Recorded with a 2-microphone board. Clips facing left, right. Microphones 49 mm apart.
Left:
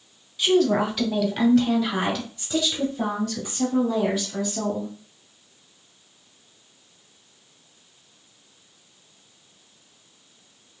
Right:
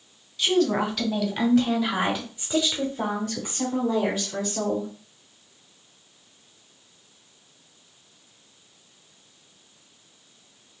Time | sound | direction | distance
0.4 | a woman speaking | 15° left (ahead or behind) | 2.0 m